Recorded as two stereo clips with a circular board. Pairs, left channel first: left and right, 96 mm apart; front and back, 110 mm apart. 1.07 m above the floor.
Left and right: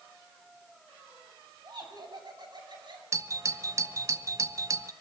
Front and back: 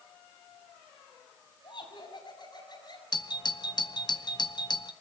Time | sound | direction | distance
1.6 | laughter | 45° right | 6.5 m
3.1 | a doorbell | 40° right | 0.8 m